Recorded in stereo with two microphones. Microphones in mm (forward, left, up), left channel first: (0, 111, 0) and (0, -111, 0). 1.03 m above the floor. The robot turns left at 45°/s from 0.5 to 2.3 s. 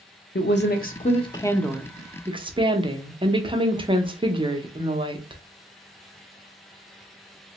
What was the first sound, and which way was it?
A woman speaking, 60° left.